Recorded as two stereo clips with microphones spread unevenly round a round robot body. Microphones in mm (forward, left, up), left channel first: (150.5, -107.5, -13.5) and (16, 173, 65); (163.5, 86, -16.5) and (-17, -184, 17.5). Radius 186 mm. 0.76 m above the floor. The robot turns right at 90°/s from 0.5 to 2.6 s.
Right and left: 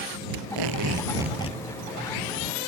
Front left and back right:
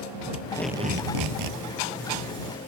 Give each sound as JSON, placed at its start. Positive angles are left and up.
{"t": 0.3, "sound": "tape being pulled", "azimuth_deg": 130}